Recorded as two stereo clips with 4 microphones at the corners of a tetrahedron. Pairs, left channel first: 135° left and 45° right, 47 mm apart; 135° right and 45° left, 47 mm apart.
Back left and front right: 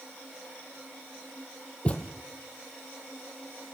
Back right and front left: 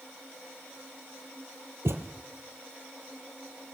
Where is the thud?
70° left, 3 m.